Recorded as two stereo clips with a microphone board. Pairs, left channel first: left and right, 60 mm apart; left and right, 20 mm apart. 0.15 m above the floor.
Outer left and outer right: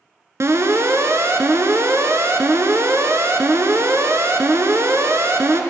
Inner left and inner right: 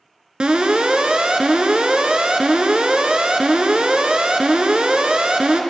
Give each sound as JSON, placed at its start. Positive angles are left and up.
{"t": 0.4, "sound": "an alarm", "side_deg": -50, "distance_m": 1.1}